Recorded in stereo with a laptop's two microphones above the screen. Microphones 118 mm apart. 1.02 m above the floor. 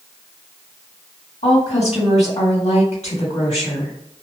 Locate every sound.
1.4 s a woman speaking: 70° left (ahead or behind), 1.6 m